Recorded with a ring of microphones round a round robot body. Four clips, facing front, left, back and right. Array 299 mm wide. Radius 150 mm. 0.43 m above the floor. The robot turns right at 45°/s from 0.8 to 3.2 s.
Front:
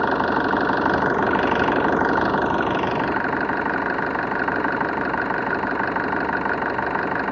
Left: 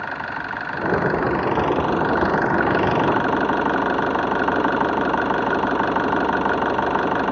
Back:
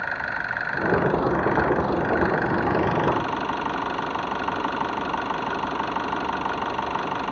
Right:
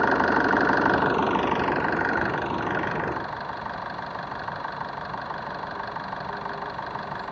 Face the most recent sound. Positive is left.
turn(degrees=75)